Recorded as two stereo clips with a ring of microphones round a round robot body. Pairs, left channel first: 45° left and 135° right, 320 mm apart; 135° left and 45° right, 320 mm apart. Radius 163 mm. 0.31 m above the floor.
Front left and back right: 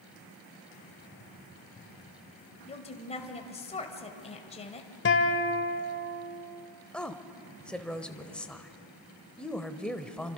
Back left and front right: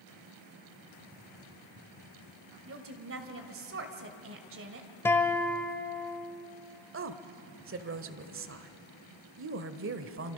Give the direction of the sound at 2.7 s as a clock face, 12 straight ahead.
1 o'clock.